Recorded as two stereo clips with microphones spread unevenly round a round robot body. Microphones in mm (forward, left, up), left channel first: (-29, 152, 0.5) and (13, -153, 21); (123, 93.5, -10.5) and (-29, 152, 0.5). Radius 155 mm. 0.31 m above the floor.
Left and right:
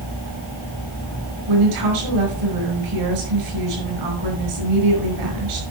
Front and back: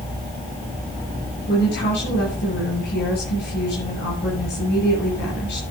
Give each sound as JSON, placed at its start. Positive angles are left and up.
{"t": 1.5, "sound": "a woman speaking", "azimuth_deg": -60, "distance_m": 6.0}